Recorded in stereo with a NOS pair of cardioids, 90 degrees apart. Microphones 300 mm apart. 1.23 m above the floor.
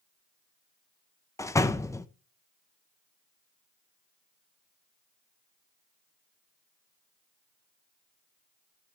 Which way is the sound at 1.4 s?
10° left.